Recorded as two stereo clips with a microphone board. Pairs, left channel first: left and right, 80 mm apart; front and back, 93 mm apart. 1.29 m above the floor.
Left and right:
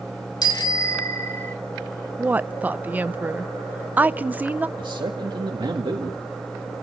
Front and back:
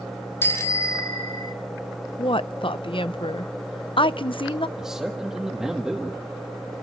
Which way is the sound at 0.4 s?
65° left.